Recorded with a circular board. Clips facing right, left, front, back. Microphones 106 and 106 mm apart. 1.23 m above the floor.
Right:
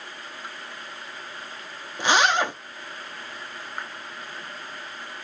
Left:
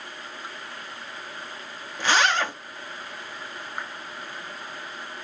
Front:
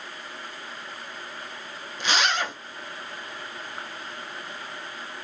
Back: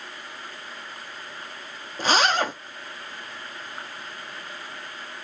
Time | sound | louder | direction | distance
2.0 | a zipper | right 2 dB, back 4 dB | 155° right | 0.5 m